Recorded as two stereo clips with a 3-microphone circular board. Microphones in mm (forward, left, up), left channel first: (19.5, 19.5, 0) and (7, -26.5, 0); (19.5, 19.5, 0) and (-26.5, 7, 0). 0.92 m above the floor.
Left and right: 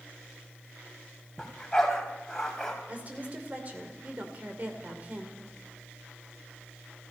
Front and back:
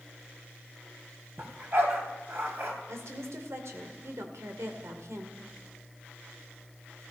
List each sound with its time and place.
1.4 s a dog barking: 155° left, 2.5 m
2.9 s a woman speaking: 160° right, 2.5 m